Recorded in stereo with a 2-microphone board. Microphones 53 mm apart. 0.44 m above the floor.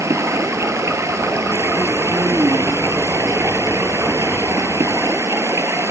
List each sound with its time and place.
0.0 s running water: 70° right (ahead or behind), 1.6 m